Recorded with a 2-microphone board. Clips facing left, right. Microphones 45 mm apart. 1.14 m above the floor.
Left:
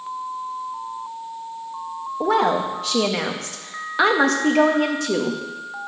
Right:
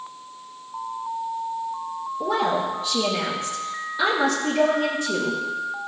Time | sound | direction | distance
2.2 | a woman speaking | 75° left (ahead or behind) | 1.6 m